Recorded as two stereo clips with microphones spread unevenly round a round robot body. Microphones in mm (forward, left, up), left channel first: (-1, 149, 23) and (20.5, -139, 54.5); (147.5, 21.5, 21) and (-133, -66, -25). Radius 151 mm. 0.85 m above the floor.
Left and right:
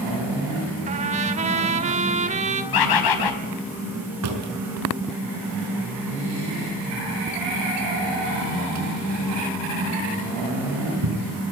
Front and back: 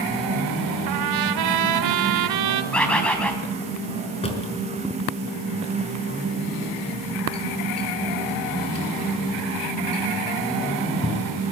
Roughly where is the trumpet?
Behind right.